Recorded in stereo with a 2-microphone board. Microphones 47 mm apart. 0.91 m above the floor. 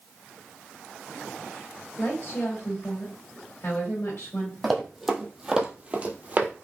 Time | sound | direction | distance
2.0 | a woman speaking | 65° left (ahead or behind) | 2.5 m
4.6 | running footsteps | centre (ahead or behind) | 1.4 m